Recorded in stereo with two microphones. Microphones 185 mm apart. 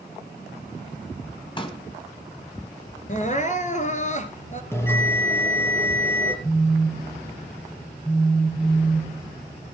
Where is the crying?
40° left (ahead or behind), 1.5 m.